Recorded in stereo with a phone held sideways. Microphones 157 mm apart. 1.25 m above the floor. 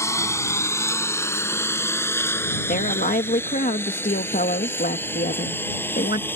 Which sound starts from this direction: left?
A woman speaking, at 2.7 s.